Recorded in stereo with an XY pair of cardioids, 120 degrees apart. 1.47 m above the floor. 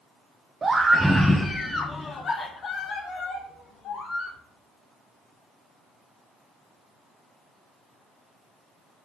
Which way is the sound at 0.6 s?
25° right.